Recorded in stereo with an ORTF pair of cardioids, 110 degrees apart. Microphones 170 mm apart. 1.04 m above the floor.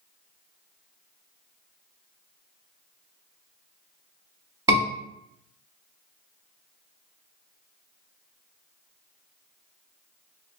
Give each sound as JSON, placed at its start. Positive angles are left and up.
{"t": 4.7, "sound": "a scream", "azimuth_deg": -35, "distance_m": 1.4}